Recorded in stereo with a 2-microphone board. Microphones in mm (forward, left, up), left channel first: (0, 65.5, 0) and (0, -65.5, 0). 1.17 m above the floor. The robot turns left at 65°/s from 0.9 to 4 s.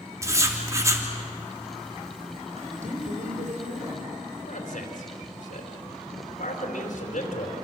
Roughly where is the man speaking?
Left.